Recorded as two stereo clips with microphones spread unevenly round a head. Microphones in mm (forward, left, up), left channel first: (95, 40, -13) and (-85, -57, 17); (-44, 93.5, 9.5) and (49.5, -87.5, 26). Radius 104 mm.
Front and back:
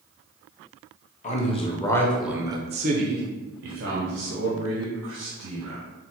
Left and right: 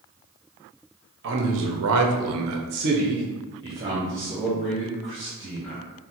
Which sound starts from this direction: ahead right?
A man speaking, at 1.2 s.